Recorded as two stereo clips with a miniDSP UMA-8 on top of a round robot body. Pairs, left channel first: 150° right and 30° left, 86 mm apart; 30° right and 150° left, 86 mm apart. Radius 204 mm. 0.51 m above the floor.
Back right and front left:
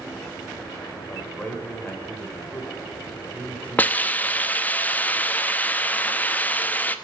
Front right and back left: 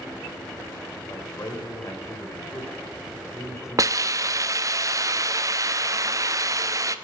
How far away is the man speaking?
About 2.5 m.